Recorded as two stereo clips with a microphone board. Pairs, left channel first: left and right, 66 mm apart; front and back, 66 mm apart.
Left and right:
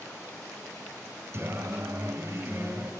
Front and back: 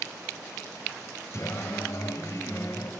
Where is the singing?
45° right, 2 m.